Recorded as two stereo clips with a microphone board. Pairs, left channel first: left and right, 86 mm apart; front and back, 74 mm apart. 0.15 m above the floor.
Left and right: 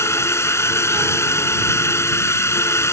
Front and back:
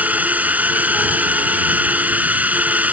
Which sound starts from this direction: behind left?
A drone, at 0.0 s.